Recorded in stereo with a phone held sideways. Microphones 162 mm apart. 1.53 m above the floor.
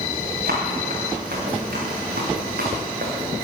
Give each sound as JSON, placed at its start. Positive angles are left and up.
{"t": 0.5, "sound": "running footsteps", "side_deg": -65, "distance_m": 7.0}